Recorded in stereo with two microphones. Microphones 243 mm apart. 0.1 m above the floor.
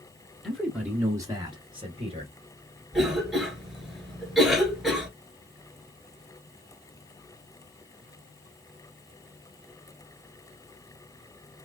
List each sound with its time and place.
0.4 s a man speaking: centre (ahead or behind), 1.1 m; by 2.3 s 25° right (ahead or behind), 1.3 m
2.9 s a cough: centre (ahead or behind), 2 m